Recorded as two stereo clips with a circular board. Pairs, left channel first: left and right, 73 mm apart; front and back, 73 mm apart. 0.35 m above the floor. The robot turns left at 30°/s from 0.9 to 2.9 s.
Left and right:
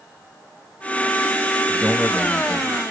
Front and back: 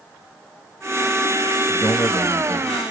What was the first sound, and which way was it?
A man speaking, 10° left.